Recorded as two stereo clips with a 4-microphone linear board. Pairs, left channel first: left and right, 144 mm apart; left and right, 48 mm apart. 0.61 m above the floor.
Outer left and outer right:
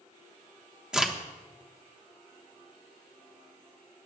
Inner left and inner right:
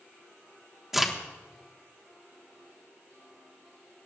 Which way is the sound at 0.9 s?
5° right (ahead or behind).